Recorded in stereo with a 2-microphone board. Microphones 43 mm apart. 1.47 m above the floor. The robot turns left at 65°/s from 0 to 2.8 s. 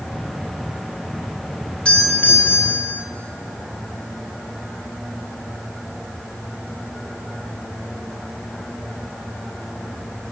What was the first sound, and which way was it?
A doorbell, 155° left.